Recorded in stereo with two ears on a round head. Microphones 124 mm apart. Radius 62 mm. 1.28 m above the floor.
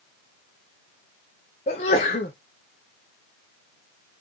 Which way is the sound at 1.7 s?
50° left (ahead or behind).